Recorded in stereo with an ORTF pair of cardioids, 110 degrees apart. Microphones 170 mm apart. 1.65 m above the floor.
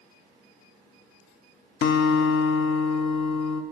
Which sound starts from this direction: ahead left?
A guitar, at 1.8 s.